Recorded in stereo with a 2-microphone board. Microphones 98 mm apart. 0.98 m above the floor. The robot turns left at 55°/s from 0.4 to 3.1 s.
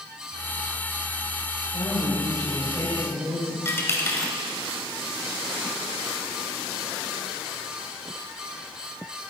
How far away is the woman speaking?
About 4 m.